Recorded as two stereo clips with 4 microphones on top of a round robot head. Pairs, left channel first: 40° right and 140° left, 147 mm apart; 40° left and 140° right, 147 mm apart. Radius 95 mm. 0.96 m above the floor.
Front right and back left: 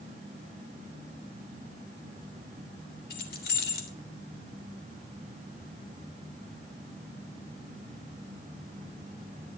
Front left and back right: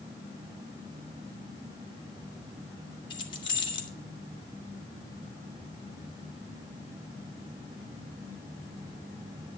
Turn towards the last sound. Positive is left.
turn(degrees=-20)